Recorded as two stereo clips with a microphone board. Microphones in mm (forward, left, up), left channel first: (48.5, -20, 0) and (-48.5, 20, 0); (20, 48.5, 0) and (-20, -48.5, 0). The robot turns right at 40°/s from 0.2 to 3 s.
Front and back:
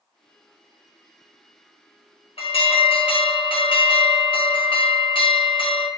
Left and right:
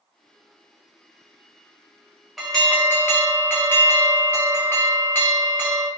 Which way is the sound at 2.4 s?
25° right.